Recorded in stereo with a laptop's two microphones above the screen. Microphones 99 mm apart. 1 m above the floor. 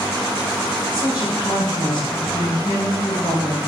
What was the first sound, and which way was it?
A woman speaking, 55° left (ahead or behind).